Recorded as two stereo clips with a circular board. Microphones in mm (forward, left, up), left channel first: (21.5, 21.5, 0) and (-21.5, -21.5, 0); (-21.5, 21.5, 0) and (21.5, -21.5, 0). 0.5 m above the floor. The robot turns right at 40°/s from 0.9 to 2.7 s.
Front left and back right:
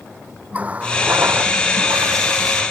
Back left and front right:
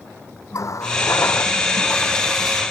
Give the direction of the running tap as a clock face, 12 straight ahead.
7 o'clock.